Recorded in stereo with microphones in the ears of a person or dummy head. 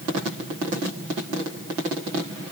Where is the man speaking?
I don't hear a man speaking.